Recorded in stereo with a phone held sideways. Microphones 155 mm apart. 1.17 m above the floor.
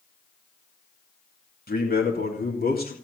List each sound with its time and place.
1.7 s a man speaking: 80° left, 2.5 m